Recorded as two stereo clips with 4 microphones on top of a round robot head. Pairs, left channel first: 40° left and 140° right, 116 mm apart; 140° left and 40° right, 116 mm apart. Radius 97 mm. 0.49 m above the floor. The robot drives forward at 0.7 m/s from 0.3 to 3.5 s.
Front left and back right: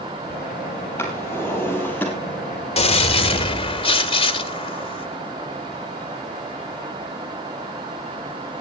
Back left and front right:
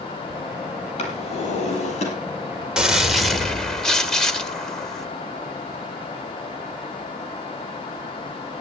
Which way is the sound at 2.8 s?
45° left.